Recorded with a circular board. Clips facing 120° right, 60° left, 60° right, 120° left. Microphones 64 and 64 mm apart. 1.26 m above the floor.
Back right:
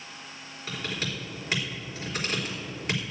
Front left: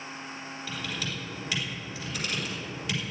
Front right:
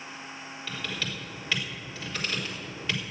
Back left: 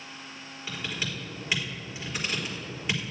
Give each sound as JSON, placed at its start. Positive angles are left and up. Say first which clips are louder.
{"t": 0.7, "sound": "typing on a keyboard", "louder": "back right 3 dB, back left 1 dB", "azimuth_deg": -165, "distance_m": 3.5}